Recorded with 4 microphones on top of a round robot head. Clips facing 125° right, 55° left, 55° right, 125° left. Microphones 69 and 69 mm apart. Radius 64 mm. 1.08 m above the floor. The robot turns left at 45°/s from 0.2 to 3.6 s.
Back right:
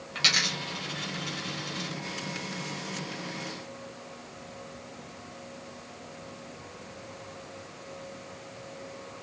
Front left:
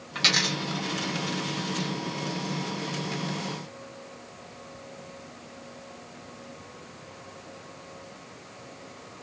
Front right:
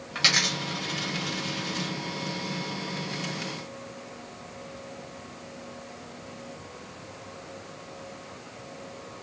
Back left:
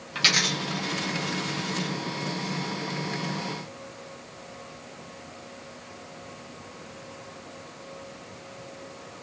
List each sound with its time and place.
0.1 s a dropped coin: 10° left, 0.9 m; by 1.9 s 65° right, 0.9 m